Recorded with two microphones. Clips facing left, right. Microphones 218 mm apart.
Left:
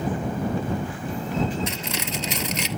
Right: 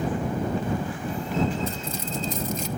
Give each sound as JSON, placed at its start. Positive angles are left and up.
{"t": 1.7, "sound": "cutlery clinking", "side_deg": 85}